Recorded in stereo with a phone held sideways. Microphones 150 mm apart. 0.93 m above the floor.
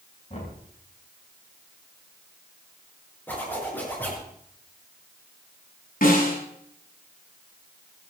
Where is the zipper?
10° left (ahead or behind), 6 m.